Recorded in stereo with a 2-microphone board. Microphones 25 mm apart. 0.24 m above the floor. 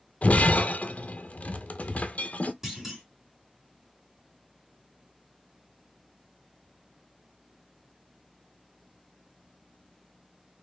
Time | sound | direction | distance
0.2 | breaking glass | 65° left (ahead or behind) | 0.5 m
2.6 | a clunk | 15° right (ahead or behind) | 2.5 m